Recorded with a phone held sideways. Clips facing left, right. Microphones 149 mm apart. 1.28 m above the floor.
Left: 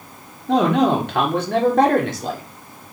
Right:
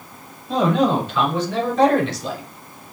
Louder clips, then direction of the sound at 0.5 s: Left 2 dB; 75° left (ahead or behind).